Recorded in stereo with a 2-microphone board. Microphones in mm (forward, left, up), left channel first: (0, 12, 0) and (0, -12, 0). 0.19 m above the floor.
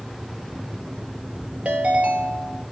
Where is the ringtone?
70° right (ahead or behind), 1.8 m.